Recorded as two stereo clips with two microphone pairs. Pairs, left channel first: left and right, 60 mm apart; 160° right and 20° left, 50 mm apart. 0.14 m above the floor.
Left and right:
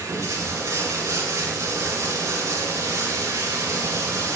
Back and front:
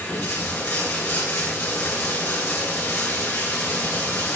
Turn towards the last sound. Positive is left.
turn(degrees=-120)